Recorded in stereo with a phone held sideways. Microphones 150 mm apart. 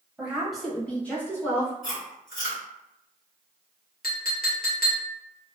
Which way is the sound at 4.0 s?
85° left.